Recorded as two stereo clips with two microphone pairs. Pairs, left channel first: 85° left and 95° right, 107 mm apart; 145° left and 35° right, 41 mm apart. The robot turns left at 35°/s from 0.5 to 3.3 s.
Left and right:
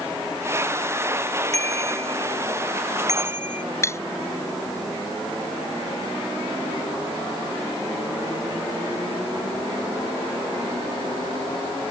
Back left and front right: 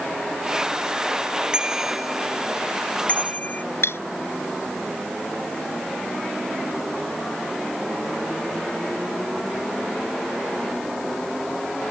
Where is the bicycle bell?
105° right; by 3.6 s 165° right.